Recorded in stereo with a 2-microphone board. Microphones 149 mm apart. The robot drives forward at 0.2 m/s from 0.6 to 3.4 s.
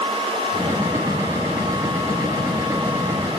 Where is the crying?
No crying in this recording.